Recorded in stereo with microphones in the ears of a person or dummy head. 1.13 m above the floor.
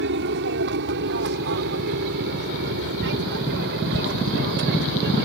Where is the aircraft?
55° right (ahead or behind); by 5.2 s 60° right (ahead or behind).